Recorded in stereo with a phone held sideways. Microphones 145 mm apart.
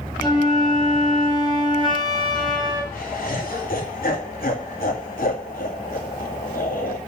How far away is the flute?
About 4.5 m.